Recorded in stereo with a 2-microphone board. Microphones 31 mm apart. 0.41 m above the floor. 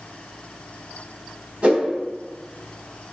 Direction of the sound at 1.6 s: 60° right (ahead or behind).